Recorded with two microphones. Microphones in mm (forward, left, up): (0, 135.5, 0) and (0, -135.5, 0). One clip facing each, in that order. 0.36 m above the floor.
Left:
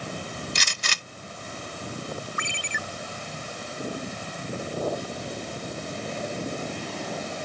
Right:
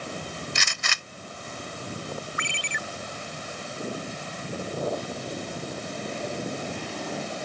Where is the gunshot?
40° left (ahead or behind).